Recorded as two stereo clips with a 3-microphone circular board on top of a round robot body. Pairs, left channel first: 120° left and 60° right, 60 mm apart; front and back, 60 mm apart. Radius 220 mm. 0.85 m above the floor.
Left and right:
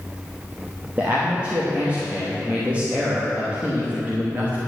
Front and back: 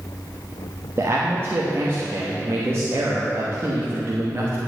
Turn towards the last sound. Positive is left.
turn(degrees=-130)